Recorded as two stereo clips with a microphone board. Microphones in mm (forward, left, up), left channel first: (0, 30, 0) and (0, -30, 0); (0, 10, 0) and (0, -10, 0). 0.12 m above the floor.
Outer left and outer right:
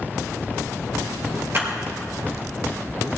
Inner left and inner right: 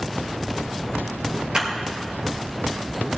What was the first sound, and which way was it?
A clap, 40° right (ahead or behind).